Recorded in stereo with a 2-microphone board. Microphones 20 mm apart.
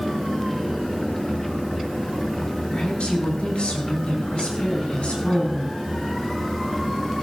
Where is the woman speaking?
70° left (ahead or behind), 4.5 m; by 5.8 s 60° left (ahead or behind), 6 m.